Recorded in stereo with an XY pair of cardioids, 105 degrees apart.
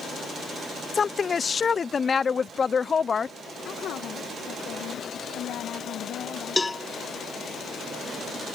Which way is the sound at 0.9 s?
35° left.